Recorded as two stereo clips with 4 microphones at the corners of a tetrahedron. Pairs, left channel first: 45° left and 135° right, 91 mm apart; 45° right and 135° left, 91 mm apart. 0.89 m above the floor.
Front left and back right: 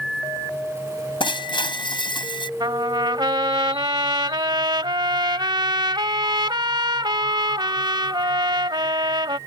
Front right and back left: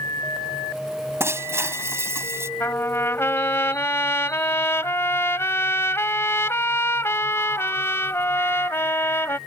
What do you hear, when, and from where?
1.2 s breaking glass: 75° left
2.6 s a trumpet: 105° right